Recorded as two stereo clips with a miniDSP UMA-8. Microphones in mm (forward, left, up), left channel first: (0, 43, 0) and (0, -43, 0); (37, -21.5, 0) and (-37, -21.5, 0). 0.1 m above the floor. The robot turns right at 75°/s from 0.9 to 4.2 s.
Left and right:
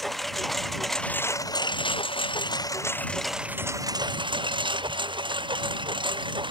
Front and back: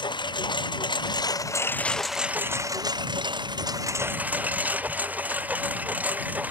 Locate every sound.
0.0 s a lawn mower: straight ahead; by 6.5 s 110° right